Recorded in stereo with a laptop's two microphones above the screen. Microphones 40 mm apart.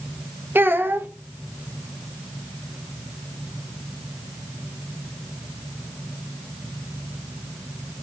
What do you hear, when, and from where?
0.6 s a child speaking: 60° right (ahead or behind), 0.6 m